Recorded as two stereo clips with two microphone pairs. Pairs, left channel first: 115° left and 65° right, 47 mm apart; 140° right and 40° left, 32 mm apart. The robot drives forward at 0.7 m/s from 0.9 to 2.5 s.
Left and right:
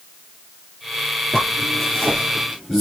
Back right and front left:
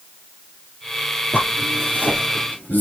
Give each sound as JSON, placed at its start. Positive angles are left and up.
{"t": 1.3, "sound": "a zipper", "azimuth_deg": -160, "distance_m": 5.0}